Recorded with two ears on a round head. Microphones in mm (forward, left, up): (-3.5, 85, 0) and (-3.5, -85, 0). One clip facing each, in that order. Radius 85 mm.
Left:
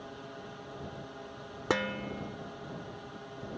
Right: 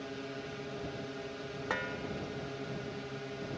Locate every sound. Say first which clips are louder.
0.0 s a drone: right 4 dB; 30° right (ahead or behind)
1.7 s dishes clattering: left 8 dB; 60° left (ahead or behind)